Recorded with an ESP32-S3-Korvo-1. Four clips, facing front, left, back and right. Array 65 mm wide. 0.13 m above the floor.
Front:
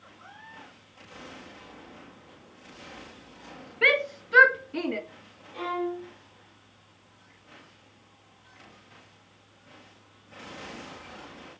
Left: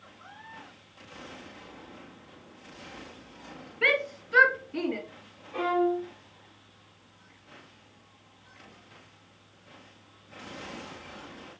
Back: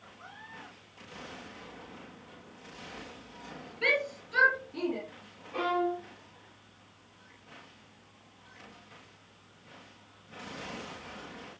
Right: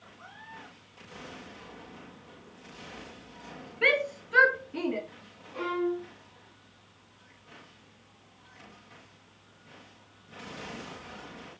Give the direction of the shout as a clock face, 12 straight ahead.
12 o'clock.